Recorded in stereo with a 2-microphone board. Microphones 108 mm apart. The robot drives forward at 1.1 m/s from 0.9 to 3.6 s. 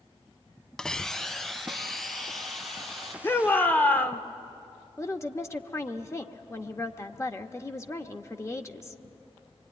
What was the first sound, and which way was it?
A hiss, 5° left (ahead or behind).